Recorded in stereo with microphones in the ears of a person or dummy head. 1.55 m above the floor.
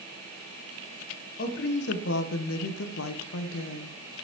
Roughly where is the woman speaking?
Left.